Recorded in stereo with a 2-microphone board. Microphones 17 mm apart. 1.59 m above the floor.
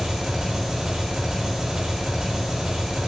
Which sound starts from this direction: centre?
An engine running, at 0.0 s.